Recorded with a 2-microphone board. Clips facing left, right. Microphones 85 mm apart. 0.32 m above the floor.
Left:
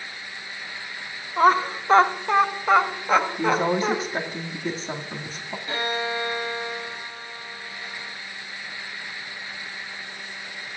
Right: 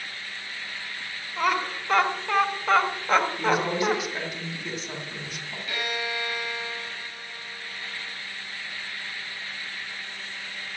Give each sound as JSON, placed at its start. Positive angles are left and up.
{"t": 1.4, "sound": "laughter", "side_deg": 40, "distance_m": 1.2}
{"t": 3.4, "sound": "a woman speaking", "side_deg": 35, "distance_m": 2.0}
{"t": 5.7, "sound": "a violin", "side_deg": 30, "distance_m": 1.1}